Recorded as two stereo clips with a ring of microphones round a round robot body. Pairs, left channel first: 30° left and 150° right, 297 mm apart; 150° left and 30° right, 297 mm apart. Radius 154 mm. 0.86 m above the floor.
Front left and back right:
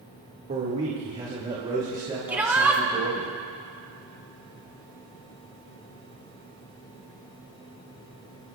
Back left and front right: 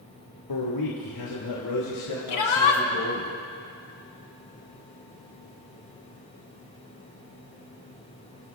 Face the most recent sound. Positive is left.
turn(degrees=125)